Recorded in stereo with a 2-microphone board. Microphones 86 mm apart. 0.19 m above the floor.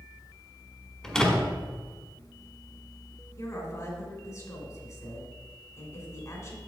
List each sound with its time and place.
1.0 s a door slam: 5° left (ahead or behind), 1.3 m
3.4 s a woman speaking: 40° left (ahead or behind), 2 m